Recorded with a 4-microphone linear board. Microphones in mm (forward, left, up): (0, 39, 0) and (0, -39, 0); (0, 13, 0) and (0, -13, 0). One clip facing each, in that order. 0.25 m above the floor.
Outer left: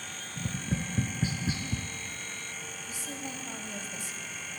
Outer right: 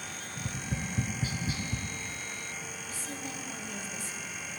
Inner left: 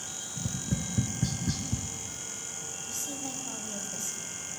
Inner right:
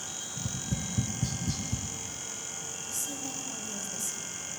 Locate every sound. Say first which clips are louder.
0.4 s tapping: outer left 3 dB, inner left 2 dB; 25° left (ahead or behind), 1.3 m
2.9 s a woman speaking: outer left 1 dB, even; 20° left (ahead or behind), 1.3 m